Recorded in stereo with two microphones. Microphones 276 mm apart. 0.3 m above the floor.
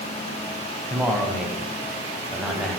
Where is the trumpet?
No trumpet in this recording.